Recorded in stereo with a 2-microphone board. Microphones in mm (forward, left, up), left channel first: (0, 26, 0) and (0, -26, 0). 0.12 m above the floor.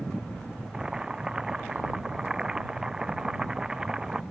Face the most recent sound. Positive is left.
turn(degrees=-15)  # may be behind; listen again after turning